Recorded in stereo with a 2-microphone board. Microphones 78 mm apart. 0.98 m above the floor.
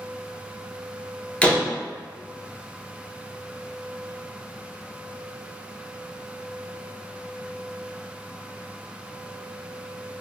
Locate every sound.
1.4 s a door slam: 20° left (ahead or behind), 0.5 m